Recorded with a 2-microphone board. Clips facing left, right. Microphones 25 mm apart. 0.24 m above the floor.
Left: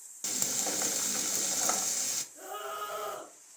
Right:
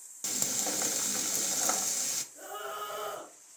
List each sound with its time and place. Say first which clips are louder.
0.2 s frying: even; 5° left (ahead or behind), 0.5 m
2.3 s a scream: even; 35° left (ahead or behind), 2.5 m